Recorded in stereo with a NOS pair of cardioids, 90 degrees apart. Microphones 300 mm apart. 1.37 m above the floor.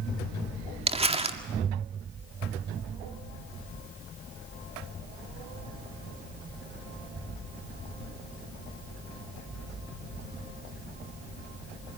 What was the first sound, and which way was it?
Crumpling, 20° right.